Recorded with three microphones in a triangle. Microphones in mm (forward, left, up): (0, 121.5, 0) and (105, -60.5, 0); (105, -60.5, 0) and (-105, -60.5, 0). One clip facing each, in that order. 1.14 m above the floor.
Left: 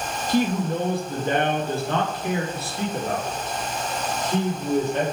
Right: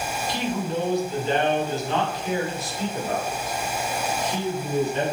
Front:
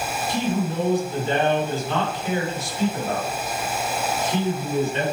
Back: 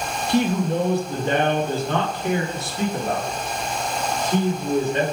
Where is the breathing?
I don't hear breathing.